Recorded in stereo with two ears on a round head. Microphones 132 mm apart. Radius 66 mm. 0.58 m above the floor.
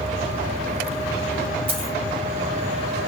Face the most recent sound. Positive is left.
turn(degrees=-40)  # may be behind; listen again after turning